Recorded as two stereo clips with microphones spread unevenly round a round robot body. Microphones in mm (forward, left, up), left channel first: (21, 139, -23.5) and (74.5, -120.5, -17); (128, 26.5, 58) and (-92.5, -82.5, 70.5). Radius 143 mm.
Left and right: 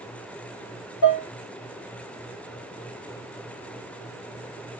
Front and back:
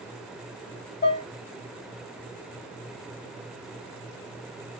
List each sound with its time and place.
1.0 s dishes clattering: 90° left, 1.2 m